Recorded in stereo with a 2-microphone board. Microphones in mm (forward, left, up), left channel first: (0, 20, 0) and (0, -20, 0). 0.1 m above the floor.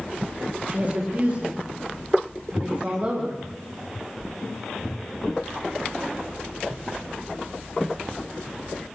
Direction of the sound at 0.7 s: 35° right (ahead or behind).